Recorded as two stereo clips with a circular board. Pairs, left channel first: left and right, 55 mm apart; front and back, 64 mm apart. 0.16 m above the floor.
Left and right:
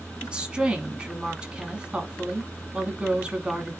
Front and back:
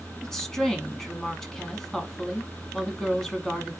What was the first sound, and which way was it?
A woman speaking, 70° right.